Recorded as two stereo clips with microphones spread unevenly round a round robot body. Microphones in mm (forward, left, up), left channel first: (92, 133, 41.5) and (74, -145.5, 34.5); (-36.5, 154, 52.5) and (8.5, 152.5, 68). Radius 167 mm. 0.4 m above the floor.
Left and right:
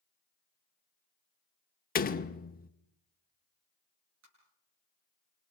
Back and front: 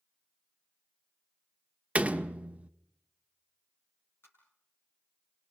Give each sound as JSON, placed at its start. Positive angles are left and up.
{"t": 1.9, "sound": "a door slam", "azimuth_deg": 70, "distance_m": 0.8}
{"t": 4.2, "sound": "tapping", "azimuth_deg": -145, "distance_m": 7.5}